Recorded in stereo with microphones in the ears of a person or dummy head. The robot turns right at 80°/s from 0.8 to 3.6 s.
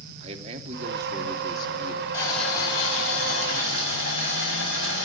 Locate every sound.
0.2 s a man speaking: 35° right, 0.8 m; by 2.0 s 65° left, 0.8 m
2.1 s boiling: 155° left, 4.5 m; by 5.0 s 85° right, 4.5 m